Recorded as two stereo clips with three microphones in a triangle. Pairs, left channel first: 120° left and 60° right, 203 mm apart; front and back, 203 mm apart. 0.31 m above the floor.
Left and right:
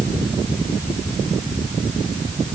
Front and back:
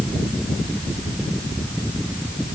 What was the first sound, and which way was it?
Only background noise.